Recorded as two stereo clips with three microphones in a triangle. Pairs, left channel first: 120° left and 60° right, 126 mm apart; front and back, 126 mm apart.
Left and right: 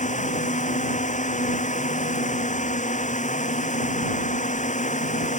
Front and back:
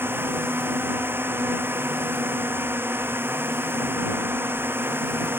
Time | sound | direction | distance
0.0 | a drone | 105° left | ?